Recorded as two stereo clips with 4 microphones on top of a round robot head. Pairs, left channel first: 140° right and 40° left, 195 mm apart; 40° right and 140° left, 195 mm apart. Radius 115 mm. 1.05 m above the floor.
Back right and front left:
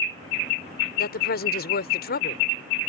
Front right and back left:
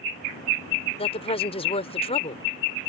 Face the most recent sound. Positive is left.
turn(degrees=-100)